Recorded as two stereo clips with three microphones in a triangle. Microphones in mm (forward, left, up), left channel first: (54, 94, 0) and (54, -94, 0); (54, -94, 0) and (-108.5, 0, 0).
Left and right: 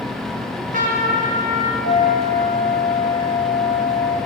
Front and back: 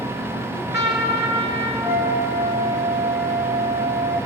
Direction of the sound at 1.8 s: 5° left.